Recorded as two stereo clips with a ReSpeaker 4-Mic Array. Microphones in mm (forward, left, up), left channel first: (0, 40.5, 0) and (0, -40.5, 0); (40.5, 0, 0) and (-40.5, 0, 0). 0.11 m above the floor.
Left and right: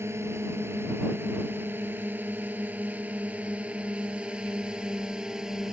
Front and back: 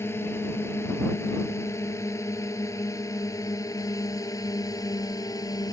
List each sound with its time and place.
0.0 s a drone: 45° right; by 5.7 s 10° right